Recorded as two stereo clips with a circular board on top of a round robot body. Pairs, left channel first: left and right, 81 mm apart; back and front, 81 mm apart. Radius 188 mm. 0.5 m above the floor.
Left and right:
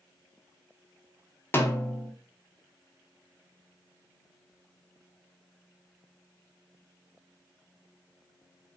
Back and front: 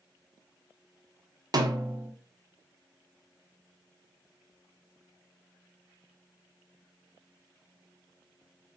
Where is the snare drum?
30° left, 1.1 m.